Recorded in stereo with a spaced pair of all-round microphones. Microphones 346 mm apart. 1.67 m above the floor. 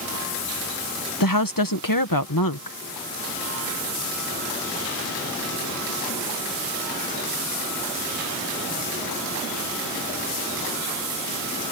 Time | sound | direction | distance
1.2 | a woman speaking | 70° left (ahead or behind) | ?